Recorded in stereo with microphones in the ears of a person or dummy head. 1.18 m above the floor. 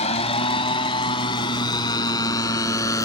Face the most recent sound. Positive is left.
turn(degrees=20)  # may be behind; listen again after turning